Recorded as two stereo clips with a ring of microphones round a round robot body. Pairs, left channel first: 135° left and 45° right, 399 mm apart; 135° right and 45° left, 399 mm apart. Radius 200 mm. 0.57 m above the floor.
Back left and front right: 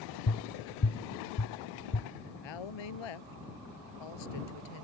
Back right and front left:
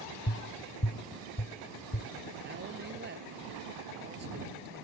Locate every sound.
0.3 s tapping: 170° left
2.4 s a woman speaking: 110° left